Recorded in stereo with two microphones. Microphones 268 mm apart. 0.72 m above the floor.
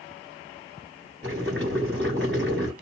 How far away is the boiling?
About 3.5 m.